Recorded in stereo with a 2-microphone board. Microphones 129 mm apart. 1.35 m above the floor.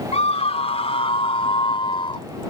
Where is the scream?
60° left (ahead or behind); by 2.3 s 40° left (ahead or behind).